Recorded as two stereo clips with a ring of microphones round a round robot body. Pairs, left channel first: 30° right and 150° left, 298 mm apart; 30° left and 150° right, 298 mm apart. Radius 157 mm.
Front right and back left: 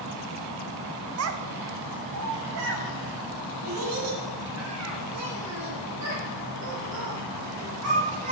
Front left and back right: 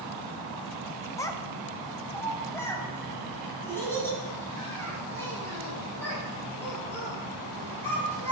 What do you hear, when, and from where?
1.2 s a child speaking: 110° left, 0.6 m; by 8.3 s 115° left, 5 m